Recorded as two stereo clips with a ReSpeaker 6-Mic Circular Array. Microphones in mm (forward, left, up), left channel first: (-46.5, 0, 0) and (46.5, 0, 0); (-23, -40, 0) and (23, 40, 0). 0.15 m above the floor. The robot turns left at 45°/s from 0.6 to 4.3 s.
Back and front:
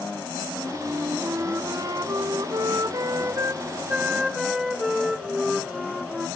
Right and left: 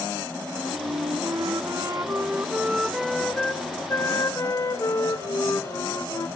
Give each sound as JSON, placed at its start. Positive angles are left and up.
{"t": 0.5, "sound": "a flute", "azimuth_deg": 85, "distance_m": 0.6}